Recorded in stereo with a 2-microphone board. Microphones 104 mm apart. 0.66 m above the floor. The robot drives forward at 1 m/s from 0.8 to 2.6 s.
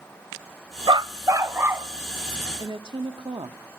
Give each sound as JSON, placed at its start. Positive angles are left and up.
{"t": 0.9, "sound": "a dog barking", "side_deg": -50, "distance_m": 0.6}
{"t": 2.6, "sound": "a woman speaking", "side_deg": -50, "distance_m": 1.4}